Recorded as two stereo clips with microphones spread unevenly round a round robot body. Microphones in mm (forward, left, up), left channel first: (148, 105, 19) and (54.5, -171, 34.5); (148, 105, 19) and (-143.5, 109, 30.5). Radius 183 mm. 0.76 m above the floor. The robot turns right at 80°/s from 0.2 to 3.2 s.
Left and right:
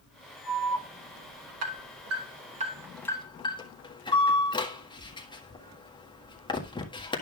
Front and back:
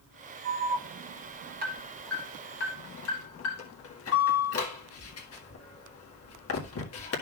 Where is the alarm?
145° left, 1.7 m; by 7.2 s 5° left, 1.7 m.